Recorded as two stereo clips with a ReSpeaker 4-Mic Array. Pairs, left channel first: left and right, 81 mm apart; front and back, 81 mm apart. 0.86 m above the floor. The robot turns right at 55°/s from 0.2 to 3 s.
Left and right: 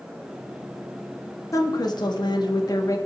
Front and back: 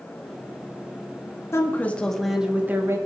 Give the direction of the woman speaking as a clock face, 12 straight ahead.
10 o'clock.